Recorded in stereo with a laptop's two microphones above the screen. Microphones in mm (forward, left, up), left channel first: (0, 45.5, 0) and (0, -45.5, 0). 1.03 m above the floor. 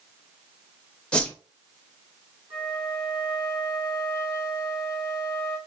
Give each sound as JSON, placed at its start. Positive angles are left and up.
{"t": 1.1, "sound": "a whoosh", "side_deg": 10, "distance_m": 0.6}
{"t": 2.5, "sound": "a flute", "side_deg": -75, "distance_m": 2.5}